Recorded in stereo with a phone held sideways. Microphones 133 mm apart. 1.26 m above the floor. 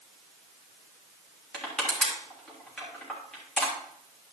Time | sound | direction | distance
1.5 | crushing | 5° left (ahead or behind) | 3.5 m